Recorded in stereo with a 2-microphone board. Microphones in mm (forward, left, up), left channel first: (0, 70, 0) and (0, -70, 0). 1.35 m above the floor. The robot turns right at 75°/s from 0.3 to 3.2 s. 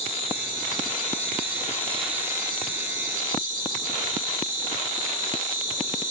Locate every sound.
0.0 s an insect: 50° left, 2.5 m; by 6.1 s 90° right, 2.5 m